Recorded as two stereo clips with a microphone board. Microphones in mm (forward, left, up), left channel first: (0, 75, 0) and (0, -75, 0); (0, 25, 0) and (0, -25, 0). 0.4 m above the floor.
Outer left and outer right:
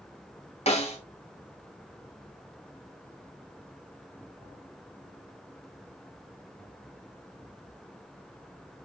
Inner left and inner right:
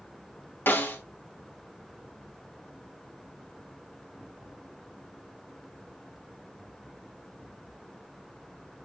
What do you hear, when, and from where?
0.7 s a snare drum: 45° left (ahead or behind), 3.5 m